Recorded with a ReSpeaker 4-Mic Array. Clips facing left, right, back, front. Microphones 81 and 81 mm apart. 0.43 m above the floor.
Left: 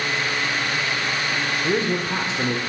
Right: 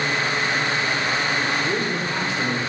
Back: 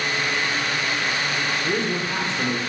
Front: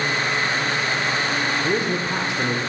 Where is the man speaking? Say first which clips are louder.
Left 2 dB, front 2 dB; 55° left, 0.8 m.